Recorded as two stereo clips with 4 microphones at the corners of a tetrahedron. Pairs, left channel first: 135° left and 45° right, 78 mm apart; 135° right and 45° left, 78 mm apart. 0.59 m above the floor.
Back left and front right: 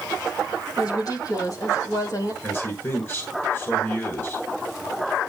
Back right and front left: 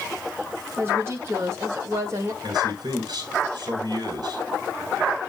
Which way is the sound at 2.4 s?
75° left.